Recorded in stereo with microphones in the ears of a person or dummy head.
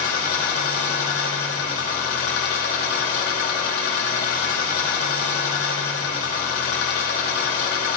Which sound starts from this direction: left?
An engine running, at 0.0 s.